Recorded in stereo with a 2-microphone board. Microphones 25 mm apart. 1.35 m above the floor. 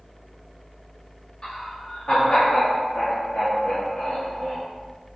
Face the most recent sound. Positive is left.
turn(degrees=85)